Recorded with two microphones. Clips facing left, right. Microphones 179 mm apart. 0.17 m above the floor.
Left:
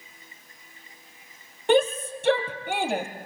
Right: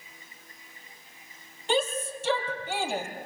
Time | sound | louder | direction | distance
1.7 | a shout | left 7 dB | 65° left (ahead or behind) | 4.5 m